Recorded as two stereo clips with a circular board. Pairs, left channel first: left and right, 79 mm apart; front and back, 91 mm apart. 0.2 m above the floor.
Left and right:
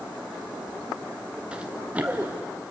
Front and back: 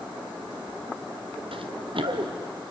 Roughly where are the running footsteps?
Behind.